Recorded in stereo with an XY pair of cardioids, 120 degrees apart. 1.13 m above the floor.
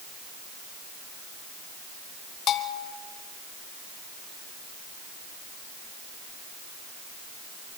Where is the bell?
55° left, 2.0 m.